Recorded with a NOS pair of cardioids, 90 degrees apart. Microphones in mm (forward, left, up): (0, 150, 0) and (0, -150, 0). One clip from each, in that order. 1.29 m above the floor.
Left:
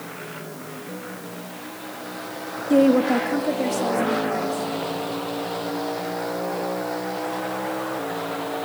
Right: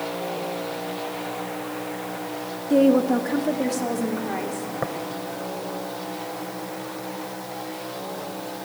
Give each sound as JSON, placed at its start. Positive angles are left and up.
{"t": 2.7, "sound": "a woman speaking", "azimuth_deg": 20, "distance_m": 1.7}
{"t": 4.8, "sound": "tapping", "azimuth_deg": -70, "distance_m": 3.0}